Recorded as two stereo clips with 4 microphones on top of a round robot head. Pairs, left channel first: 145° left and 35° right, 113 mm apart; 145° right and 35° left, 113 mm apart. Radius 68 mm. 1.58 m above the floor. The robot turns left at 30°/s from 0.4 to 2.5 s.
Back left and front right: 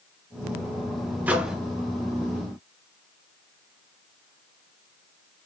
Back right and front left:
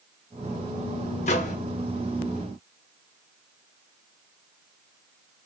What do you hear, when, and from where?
1.3 s a microwave: 110° right, 0.8 m; by 1.6 s 120° right, 0.8 m